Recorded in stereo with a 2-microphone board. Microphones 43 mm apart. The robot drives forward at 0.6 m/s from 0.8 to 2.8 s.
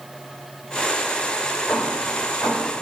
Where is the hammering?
75° left (ahead or behind), 5.5 m; by 2.7 s 70° left (ahead or behind), 5.5 m.